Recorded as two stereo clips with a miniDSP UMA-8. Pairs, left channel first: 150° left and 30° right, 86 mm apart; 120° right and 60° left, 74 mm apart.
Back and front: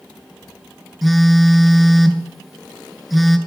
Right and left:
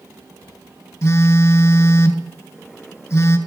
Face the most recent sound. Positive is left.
turn(degrees=-120)